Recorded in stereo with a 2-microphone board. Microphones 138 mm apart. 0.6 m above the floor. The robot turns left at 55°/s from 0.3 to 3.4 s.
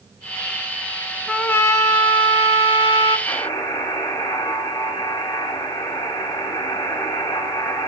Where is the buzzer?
25° left (ahead or behind), 1.9 m; by 7.9 s 30° left (ahead or behind), 1.9 m.